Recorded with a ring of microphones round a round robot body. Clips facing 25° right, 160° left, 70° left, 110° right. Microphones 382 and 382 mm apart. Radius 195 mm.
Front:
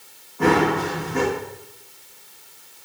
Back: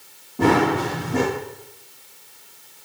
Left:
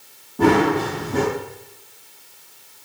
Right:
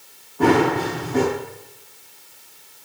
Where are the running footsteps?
115° left, 9 m.